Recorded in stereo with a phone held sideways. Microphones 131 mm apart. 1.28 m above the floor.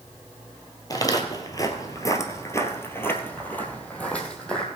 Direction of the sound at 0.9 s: 30° left (ahead or behind).